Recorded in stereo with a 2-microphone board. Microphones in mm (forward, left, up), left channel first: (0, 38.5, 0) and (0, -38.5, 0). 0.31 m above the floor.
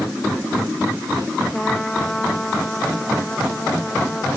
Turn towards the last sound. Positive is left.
turn(degrees=10)  # may be behind; listen again after turning